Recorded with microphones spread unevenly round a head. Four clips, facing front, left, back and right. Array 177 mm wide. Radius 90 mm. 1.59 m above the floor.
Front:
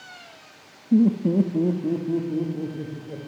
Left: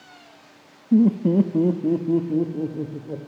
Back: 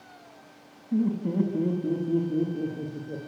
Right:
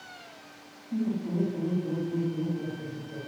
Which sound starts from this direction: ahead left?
Laughter, at 0.9 s.